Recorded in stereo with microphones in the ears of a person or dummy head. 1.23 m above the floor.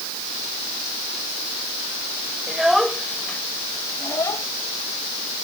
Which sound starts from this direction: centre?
A child speaking, at 2.5 s.